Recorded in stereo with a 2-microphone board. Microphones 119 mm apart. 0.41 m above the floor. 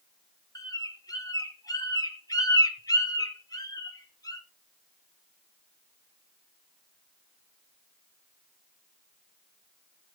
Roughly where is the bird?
Left.